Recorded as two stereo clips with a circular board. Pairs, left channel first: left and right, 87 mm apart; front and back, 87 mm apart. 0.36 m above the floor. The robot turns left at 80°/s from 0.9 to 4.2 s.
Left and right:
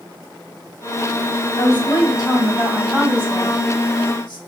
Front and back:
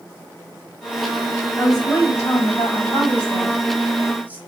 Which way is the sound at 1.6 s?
100° left.